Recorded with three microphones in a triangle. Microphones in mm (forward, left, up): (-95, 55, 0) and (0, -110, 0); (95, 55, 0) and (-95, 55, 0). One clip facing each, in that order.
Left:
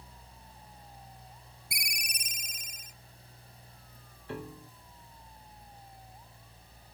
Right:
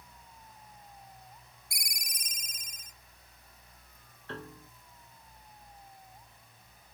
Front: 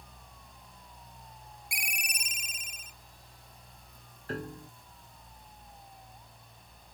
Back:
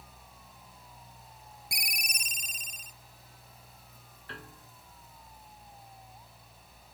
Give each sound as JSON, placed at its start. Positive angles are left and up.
{"t": 1.7, "sound": "a ringtone", "azimuth_deg": 130}
{"t": 4.3, "sound": "a piano", "azimuth_deg": 45}